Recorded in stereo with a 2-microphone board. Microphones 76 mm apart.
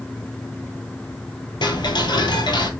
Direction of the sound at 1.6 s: 75° left (ahead or behind).